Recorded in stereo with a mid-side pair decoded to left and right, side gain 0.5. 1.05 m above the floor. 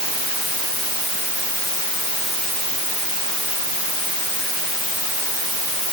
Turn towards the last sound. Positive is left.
No sound to turn to.